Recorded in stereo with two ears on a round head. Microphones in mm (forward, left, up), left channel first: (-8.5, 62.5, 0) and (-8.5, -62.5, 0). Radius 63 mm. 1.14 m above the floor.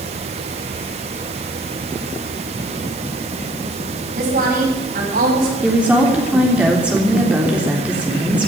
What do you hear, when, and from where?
4.2 s a woman speaking: 60° right (ahead or behind), 8.5 m; by 5.5 s 70° right (ahead or behind), 8 m
5.6 s a woman speaking: 10° right (ahead or behind), 3.5 m